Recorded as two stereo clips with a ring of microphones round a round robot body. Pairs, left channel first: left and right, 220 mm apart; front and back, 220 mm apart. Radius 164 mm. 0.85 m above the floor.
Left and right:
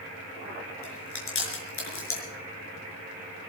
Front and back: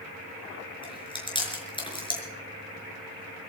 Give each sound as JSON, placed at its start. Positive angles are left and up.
{"t": 0.8, "sound": "chewing", "azimuth_deg": 70, "distance_m": 5.5}